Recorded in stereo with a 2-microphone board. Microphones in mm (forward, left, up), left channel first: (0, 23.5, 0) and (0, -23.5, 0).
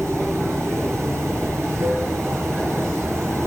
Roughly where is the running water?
Right.